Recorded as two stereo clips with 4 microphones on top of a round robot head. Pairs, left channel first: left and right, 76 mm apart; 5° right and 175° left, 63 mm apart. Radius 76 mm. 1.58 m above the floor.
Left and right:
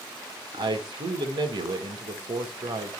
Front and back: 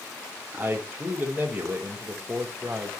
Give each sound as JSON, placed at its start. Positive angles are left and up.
{"t": 0.5, "sound": "a man speaking", "azimuth_deg": -115, "distance_m": 1.9}